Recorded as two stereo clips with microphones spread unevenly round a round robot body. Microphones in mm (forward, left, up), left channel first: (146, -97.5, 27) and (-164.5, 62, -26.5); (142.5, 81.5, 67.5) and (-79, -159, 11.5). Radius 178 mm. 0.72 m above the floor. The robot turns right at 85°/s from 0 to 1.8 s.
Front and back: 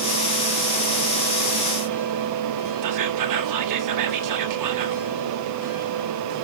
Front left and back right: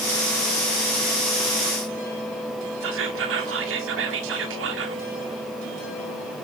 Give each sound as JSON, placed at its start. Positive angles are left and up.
{"t": 2.8, "sound": "whispering", "azimuth_deg": 180, "distance_m": 1.8}